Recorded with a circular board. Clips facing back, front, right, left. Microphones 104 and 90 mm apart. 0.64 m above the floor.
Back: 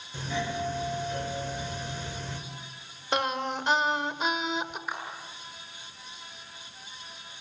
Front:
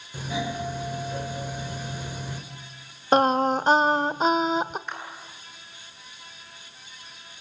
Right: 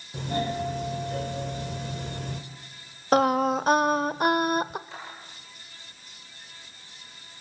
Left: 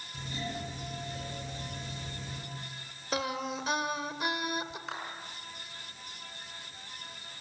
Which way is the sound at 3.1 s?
50° right.